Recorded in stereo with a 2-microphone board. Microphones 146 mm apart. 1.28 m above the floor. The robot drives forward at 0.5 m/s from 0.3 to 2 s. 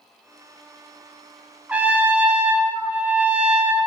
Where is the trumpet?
10° right (ahead or behind), 0.8 m.